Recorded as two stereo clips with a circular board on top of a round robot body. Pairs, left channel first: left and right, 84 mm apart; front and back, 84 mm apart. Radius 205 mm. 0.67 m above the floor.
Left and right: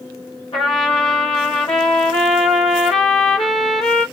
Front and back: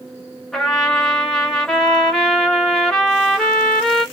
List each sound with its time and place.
0.5 s a trumpet: 85° left, 0.5 m